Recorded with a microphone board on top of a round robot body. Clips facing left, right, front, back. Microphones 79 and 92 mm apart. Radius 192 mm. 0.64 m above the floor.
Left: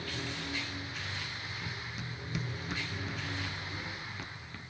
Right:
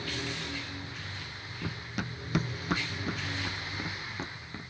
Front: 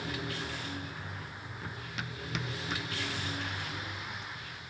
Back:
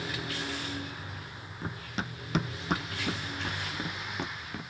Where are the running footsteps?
115° right; by 4.7 s 160° right.